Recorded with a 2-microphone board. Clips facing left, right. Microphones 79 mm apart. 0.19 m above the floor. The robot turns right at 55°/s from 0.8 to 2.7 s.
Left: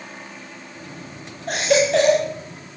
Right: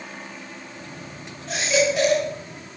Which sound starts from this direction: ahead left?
A baby crying, at 1.5 s.